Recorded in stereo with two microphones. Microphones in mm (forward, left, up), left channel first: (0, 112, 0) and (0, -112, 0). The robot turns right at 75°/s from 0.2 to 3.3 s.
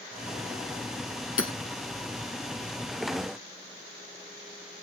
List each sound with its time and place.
1.4 s hammering: 70° left (ahead or behind), 1.7 m; by 1.5 s 65° left (ahead or behind), 1.7 m